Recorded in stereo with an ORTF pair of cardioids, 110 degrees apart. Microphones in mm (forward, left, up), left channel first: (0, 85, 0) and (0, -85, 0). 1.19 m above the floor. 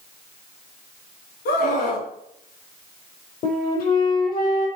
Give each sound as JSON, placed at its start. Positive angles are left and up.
{"t": 1.4, "sound": "a scream", "azimuth_deg": 65, "distance_m": 4.0}
{"t": 3.4, "sound": "a flute", "azimuth_deg": 65, "distance_m": 5.0}